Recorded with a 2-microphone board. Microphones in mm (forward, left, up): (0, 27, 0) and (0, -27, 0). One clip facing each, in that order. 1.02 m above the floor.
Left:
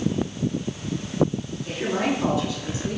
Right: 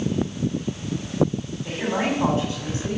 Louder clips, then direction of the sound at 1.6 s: Even; 40° right (ahead or behind).